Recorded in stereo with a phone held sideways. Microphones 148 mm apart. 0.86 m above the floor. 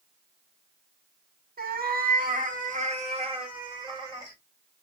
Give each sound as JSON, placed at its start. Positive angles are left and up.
{"t": 1.6, "sound": "a cat meowing", "side_deg": -80, "distance_m": 0.9}